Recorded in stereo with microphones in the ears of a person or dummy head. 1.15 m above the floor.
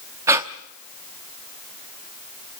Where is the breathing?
20° right (ahead or behind), 0.8 m.